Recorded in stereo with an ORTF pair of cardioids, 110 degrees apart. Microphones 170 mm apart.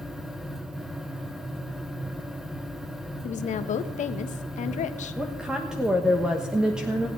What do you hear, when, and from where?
0.0 s a fan: straight ahead, 0.9 m
3.2 s a woman speaking: 50° left, 1.1 m
5.2 s a woman speaking: 5° right, 1.2 m